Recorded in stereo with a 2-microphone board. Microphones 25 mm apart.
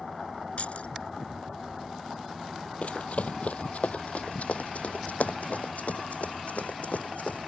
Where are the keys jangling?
55° left (ahead or behind).